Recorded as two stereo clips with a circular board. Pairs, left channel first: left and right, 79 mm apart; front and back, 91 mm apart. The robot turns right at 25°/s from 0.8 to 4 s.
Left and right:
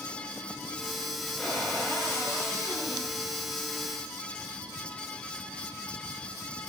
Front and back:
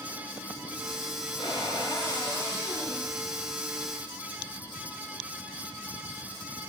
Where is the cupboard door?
15° left, 5 m; by 3.1 s 60° left, 5 m.